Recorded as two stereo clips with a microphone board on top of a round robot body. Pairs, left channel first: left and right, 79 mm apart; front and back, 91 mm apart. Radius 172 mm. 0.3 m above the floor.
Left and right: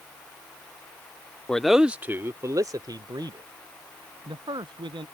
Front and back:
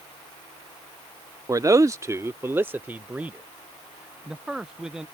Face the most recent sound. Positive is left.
turn(degrees=-95)